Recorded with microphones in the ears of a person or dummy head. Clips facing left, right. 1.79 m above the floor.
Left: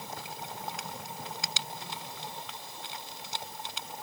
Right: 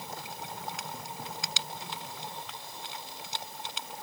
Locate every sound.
Only background noise.